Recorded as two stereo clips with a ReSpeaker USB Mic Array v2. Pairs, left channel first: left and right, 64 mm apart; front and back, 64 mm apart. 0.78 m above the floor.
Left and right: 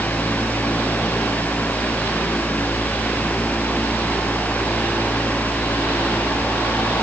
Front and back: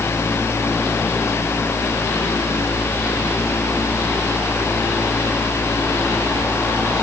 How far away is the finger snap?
No finger snap in this recording.